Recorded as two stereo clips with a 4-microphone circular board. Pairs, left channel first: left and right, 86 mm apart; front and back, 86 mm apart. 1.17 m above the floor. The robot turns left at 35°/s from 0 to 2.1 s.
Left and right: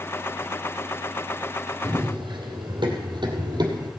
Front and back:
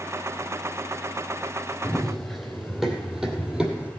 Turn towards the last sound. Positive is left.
turn(degrees=-105)